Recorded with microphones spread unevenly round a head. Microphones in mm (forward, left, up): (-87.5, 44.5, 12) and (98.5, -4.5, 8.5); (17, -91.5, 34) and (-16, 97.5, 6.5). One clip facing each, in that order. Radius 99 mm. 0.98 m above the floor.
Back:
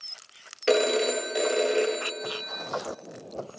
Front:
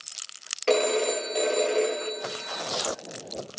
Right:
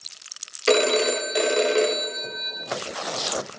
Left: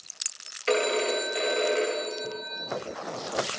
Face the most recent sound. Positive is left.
turn(degrees=-115)